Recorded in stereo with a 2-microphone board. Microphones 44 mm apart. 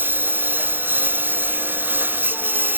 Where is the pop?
No pop in this recording.